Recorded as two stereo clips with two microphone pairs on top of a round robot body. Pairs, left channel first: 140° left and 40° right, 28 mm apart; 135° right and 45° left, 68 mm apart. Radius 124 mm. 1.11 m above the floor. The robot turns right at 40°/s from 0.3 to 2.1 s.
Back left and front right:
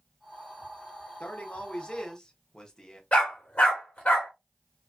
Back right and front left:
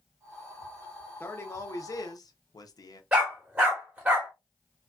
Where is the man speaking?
170° left, 0.9 m; by 3.0 s 155° right, 0.9 m.